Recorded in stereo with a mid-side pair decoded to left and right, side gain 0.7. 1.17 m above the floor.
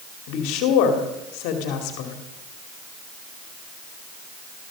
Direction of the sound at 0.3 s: 70° left.